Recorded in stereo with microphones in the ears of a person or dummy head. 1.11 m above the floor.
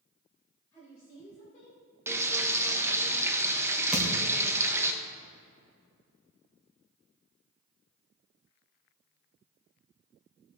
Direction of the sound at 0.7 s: 20° left (ahead or behind).